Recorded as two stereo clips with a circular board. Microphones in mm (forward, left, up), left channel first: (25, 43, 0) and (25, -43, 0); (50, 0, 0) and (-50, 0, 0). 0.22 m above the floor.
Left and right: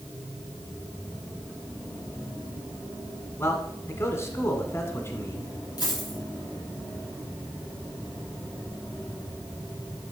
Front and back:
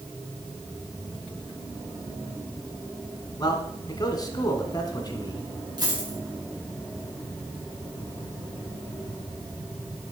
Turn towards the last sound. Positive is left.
turn(degrees=130)